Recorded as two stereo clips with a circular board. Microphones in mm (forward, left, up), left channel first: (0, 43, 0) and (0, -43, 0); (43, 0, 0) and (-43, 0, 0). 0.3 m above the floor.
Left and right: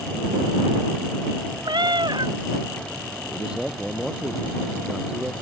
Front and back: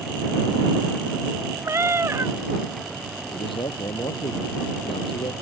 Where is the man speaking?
10° right.